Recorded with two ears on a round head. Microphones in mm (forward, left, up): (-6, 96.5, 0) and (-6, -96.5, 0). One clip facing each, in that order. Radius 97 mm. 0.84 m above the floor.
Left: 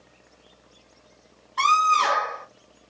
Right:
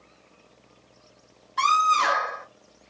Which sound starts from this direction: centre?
A scream, at 1.6 s.